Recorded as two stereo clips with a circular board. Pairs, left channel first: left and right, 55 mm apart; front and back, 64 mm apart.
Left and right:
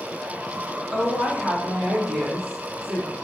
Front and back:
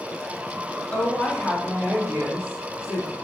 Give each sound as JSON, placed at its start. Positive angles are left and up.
{"t": 0.9, "sound": "a woman speaking", "azimuth_deg": -30, "distance_m": 1.0}